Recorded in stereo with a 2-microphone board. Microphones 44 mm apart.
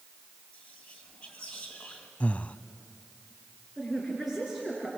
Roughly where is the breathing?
Left.